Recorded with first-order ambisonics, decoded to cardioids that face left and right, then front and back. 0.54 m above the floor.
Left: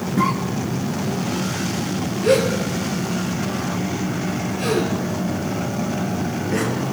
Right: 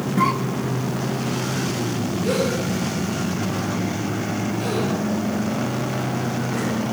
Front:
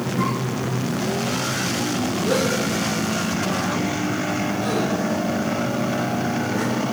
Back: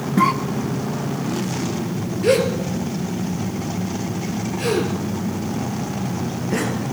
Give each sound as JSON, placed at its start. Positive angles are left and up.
{"t": 0.2, "sound": "a cough", "azimuth_deg": -170, "distance_m": 0.9}
{"t": 2.2, "sound": "a gasp", "azimuth_deg": 160, "distance_m": 3.0}